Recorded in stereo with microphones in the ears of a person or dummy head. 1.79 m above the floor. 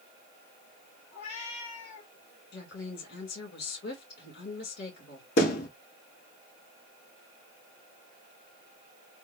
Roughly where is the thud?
Left.